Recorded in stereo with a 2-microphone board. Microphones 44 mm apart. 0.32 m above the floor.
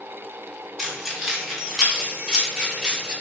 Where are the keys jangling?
5° right (ahead or behind), 1.2 m; by 3.1 s 25° right (ahead or behind), 2.5 m.